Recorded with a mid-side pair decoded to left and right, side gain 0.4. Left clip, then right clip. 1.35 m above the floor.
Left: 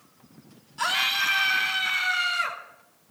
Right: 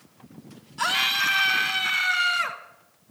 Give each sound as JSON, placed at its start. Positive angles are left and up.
{"t": 0.8, "sound": "a scream", "azimuth_deg": -20, "distance_m": 3.0}